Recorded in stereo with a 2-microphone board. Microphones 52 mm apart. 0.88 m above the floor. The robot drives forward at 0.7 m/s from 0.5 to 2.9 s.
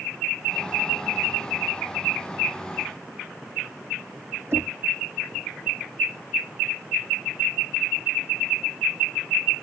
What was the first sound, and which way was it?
Knocking, 50° right (ahead or behind).